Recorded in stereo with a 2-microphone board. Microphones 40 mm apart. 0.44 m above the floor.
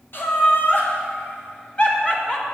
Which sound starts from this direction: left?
Laughter, at 0.1 s.